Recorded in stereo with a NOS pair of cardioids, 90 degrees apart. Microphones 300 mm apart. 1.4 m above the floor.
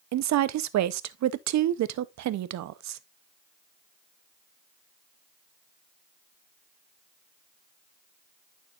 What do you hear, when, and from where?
0.1 s a woman speaking: 65° right, 0.7 m